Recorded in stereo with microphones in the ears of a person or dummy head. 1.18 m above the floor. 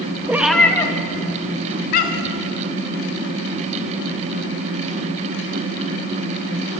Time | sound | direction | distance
0.3 | a cat meowing | 10° right (ahead or behind) | 0.7 m